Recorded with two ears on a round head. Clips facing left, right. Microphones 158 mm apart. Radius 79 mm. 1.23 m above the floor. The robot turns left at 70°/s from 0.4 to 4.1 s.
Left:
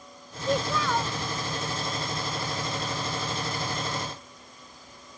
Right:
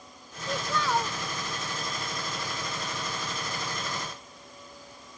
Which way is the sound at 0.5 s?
25° left.